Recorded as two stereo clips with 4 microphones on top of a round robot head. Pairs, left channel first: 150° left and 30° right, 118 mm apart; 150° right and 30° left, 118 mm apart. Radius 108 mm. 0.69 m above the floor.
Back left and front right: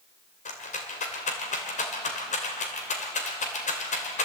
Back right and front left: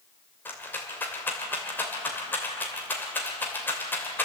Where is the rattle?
135° left, 2.5 m.